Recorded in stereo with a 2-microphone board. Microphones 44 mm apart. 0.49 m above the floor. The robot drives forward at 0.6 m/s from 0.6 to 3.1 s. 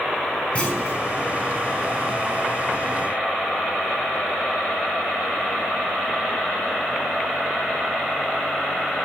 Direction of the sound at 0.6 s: 35° left (ahead or behind).